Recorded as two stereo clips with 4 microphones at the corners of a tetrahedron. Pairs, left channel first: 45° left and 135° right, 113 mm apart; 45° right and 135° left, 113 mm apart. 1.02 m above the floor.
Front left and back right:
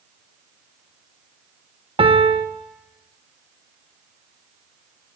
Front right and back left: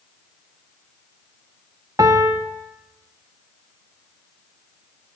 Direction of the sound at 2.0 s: 170° right.